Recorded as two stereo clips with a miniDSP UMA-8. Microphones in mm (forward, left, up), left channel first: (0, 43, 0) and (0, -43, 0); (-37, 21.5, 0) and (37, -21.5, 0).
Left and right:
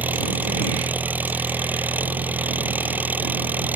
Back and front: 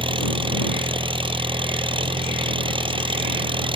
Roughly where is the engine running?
Ahead.